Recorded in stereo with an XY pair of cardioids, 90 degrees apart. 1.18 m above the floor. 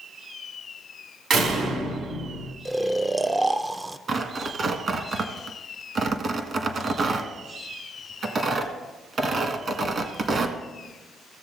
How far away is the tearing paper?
About 1.5 m.